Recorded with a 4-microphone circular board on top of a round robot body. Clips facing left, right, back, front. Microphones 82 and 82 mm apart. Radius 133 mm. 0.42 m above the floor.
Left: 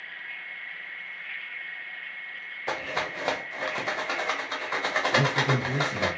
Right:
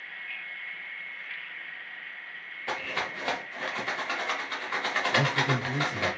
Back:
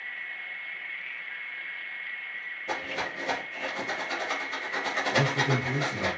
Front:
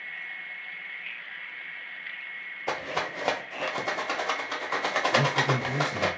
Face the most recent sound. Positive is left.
turn(degrees=145)